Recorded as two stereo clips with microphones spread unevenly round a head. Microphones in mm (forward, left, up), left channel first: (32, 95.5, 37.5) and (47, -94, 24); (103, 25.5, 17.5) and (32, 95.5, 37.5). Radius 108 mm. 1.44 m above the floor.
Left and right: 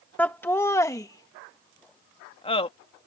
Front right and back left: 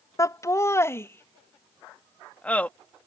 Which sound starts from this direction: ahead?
Laughter, at 0.2 s.